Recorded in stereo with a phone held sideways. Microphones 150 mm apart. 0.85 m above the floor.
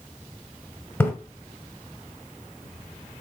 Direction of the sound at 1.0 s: 10° left (ahead or behind).